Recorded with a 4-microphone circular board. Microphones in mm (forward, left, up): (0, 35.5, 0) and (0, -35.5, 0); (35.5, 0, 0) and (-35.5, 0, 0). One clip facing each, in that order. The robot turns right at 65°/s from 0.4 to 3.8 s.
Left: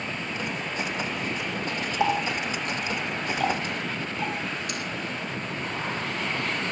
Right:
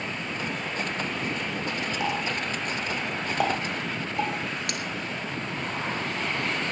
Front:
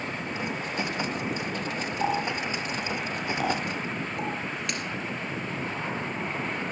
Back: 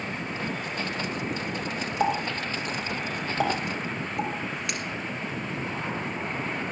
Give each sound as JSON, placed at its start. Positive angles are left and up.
{"t": 2.0, "sound": "a running tap", "azimuth_deg": 150, "distance_m": 3.0}